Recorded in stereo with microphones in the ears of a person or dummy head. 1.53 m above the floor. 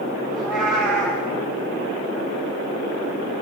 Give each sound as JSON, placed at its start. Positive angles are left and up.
{"t": 0.3, "sound": "a cat meowing", "side_deg": 5, "distance_m": 5.0}